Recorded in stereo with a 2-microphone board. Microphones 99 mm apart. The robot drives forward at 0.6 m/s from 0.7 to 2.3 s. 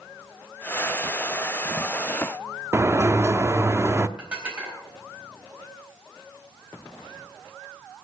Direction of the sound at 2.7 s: 25° right (ahead or behind).